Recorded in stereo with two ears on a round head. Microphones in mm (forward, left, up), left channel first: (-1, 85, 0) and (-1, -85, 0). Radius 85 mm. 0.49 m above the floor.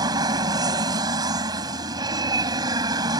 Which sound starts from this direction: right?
An aircraft, at 0.0 s.